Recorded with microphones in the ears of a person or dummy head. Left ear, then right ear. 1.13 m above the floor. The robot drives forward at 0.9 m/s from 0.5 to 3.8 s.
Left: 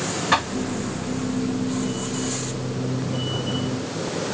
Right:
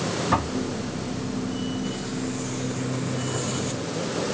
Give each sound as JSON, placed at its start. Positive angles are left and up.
{"t": 0.3, "sound": "knocking", "side_deg": 75}